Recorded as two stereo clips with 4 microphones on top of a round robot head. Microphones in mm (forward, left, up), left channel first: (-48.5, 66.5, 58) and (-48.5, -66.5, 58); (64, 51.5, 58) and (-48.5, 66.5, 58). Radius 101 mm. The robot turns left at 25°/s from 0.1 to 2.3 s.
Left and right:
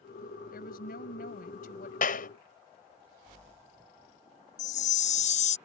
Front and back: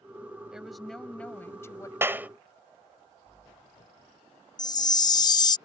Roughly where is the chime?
Ahead left.